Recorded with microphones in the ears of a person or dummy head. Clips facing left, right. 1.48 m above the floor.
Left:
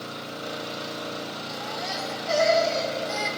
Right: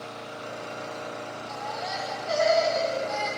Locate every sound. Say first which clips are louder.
0.0 s an engine running: left 3 dB; 50° left (ahead or behind), 0.9 m
1.5 s a baby crying: right 2 dB; 40° left (ahead or behind), 1.3 m